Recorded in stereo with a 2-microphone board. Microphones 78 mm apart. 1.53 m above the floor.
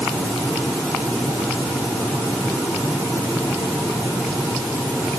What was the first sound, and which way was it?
Only background noise.